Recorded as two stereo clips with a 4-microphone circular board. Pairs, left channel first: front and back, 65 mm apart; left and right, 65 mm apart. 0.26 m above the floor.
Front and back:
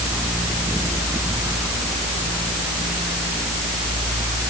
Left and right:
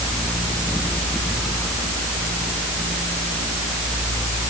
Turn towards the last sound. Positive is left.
No sound to turn to.